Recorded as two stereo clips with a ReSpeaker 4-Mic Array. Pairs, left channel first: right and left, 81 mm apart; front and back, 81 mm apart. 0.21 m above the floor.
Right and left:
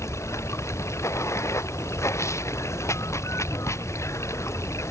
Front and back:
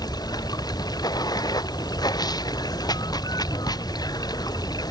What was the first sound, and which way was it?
Running water, 35° right.